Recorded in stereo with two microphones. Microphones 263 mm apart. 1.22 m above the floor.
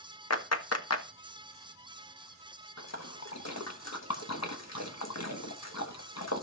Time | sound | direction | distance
0.3 | a clap | 70° left (ahead or behind) | 1.0 m
2.8 | a splash | 75° left (ahead or behind) | 1.2 m